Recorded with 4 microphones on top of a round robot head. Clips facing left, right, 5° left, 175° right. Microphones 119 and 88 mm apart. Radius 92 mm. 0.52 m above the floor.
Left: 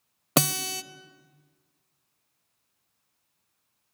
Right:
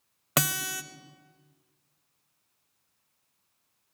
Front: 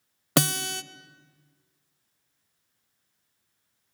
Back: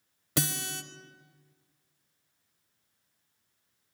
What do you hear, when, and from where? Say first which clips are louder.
0.4 s a guitar: left 4 dB, front 8 dB; 30° left, 0.7 m